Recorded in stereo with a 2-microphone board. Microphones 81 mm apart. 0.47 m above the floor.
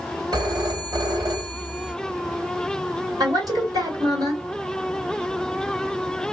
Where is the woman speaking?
55° right (ahead or behind), 2 m.